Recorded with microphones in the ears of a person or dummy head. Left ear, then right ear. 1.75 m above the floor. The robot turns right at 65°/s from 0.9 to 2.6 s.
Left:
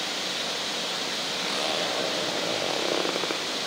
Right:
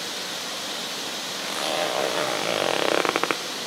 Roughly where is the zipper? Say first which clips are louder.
Right 3 dB; behind.